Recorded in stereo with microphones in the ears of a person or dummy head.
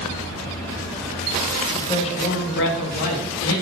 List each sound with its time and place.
1.7 s a man speaking: 15° left (ahead or behind), 1.5 m; by 3.5 s 85° left, 2 m